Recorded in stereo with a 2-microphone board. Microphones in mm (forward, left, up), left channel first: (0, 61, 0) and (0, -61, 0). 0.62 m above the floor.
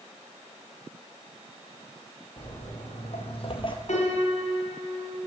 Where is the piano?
80° left, 1.9 m.